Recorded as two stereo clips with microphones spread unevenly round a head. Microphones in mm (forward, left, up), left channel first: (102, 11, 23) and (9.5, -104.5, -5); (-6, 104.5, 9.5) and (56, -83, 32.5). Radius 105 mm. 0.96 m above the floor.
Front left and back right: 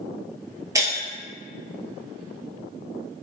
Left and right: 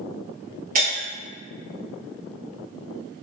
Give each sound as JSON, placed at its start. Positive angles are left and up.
{"t": 0.8, "sound": "breaking glass", "azimuth_deg": -55, "distance_m": 1.3}